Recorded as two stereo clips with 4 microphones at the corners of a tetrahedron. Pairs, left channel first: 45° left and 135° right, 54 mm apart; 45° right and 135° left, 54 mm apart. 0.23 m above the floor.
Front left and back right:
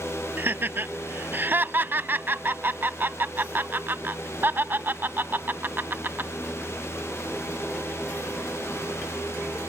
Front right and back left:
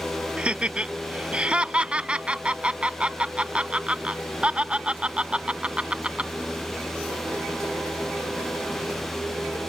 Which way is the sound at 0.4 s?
165° right.